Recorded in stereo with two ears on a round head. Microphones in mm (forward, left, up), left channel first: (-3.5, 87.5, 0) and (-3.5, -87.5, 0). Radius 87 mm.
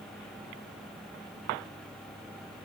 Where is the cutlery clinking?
I don't hear cutlery clinking.